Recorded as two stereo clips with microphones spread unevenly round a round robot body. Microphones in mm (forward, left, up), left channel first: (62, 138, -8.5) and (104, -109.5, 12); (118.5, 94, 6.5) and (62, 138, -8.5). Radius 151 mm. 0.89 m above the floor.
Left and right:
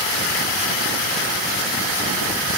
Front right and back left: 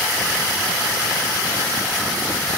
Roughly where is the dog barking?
No dog barking in this recording.